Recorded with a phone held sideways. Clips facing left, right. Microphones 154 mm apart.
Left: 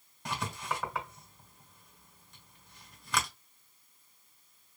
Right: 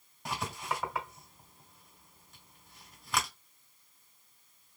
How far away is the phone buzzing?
No phone buzzing in this recording.